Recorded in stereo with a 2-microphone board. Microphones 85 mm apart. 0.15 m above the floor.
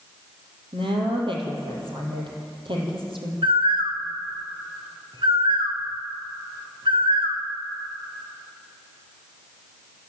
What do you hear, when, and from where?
0.7 s a woman speaking: 75° right (ahead or behind), 6 m
3.4 s a bird: 80° right, 2.5 m